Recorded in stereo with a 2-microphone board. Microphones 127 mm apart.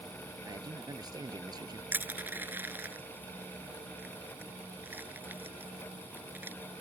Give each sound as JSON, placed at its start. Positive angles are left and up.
{"t": 0.4, "sound": "a man speaking", "side_deg": -30}
{"t": 1.9, "sound": "crushing", "side_deg": -15}